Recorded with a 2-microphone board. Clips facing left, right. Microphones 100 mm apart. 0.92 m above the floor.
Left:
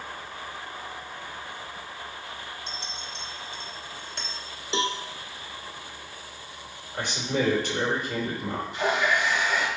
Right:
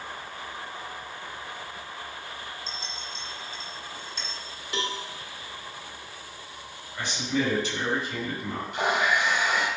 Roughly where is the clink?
Left.